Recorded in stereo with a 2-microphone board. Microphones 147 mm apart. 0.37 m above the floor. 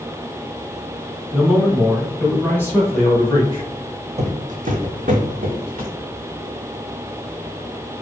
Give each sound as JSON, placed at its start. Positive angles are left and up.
{"t": 1.3, "sound": "a man speaking", "side_deg": -5, "distance_m": 1.3}
{"t": 4.2, "sound": "footsteps", "side_deg": -50, "distance_m": 0.7}